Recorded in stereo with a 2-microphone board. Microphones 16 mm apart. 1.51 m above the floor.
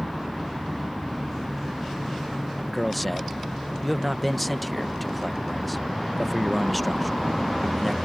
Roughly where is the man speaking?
Centre.